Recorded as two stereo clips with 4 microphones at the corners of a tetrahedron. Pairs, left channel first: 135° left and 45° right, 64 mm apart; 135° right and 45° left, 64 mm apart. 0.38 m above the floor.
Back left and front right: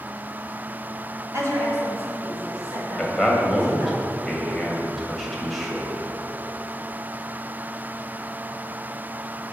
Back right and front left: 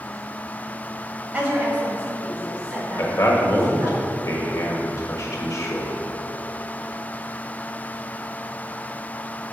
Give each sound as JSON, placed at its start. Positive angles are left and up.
{"t": 1.3, "sound": "a woman speaking", "azimuth_deg": -20, "distance_m": 1.7}
{"t": 3.0, "sound": "a man speaking", "azimuth_deg": -135, "distance_m": 1.3}